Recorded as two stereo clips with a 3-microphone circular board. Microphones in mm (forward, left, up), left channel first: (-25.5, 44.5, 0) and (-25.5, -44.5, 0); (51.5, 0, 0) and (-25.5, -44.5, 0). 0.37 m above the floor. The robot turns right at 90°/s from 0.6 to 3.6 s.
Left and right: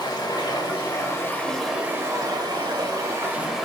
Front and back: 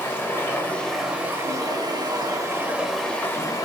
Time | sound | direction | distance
0.0 | running water | 90° left | 0.8 m